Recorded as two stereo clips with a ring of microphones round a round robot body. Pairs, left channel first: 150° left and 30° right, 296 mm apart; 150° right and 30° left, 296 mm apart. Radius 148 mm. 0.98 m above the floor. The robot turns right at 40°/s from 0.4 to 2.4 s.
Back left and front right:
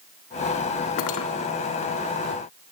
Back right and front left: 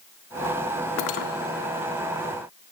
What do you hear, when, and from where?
1.0 s cutlery clinking: 175° left, 1.5 m; by 1.3 s 170° right, 1.5 m